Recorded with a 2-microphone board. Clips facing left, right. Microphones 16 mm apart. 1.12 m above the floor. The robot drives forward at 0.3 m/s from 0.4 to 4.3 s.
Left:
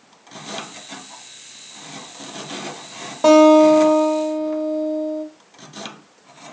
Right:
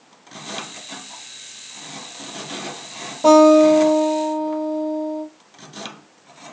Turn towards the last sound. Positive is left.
turn(degrees=55)  # may be behind; listen again after turning